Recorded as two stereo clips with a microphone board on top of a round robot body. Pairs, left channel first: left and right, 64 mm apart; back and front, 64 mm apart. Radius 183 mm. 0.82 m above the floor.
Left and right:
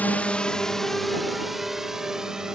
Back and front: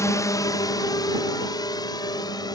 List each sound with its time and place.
0.0 s a drone: 150° left; by 2.6 s 170° right